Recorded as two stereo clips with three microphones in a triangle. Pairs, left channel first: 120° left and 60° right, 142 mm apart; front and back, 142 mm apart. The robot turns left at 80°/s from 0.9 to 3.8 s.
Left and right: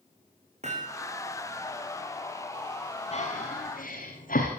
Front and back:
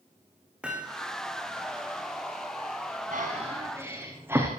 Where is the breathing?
160° left, 6.5 m; by 4.5 s 105° left, 6.5 m.